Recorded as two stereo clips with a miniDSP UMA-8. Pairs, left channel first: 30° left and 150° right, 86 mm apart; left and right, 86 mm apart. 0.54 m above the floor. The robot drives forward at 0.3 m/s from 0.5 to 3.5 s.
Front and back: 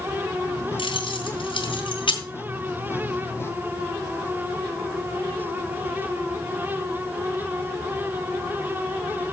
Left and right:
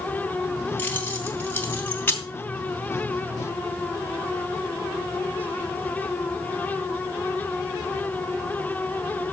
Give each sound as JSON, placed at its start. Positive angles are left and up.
{"t": 0.8, "sound": "keys jangling", "azimuth_deg": 20, "distance_m": 3.0}